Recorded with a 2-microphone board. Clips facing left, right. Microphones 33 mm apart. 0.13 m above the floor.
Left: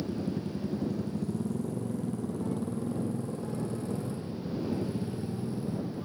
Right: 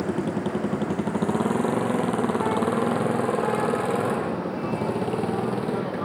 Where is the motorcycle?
85° right; by 6.0 s 70° right (ahead or behind).